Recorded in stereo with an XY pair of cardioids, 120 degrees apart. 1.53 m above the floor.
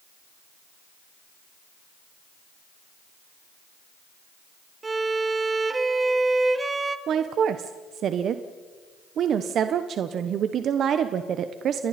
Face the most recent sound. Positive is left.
turn(degrees=-55)